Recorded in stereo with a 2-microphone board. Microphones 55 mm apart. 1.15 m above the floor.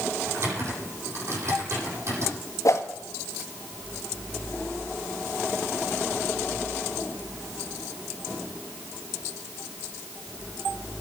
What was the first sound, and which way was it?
Typing on a keyboard, 55° right (ahead or behind).